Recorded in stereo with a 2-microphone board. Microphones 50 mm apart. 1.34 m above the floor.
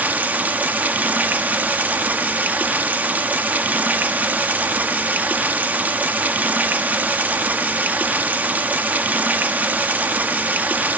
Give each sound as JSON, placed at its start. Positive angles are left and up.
{"t": 0.0, "sound": "running water", "side_deg": -35, "distance_m": 0.9}